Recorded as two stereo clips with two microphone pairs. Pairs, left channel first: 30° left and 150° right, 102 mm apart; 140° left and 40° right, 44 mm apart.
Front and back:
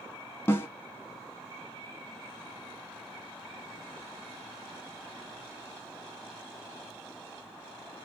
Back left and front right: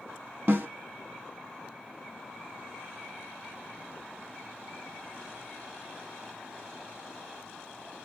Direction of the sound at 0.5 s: 30° right.